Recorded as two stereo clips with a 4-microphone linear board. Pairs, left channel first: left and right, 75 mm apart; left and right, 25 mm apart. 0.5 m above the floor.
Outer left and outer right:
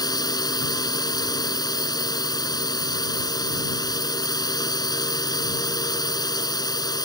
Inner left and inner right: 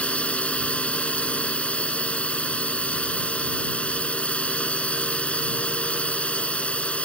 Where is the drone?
60° left (ahead or behind).